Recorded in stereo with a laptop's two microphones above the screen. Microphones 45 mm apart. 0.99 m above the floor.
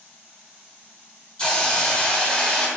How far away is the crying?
I don't hear crying.